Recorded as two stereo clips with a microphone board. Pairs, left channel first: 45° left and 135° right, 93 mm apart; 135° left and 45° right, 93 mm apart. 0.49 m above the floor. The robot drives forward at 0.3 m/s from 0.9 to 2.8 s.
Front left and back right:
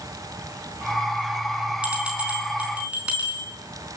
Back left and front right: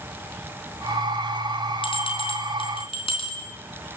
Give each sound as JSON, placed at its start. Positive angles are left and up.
{"t": 1.8, "sound": "a bell", "azimuth_deg": 145, "distance_m": 4.5}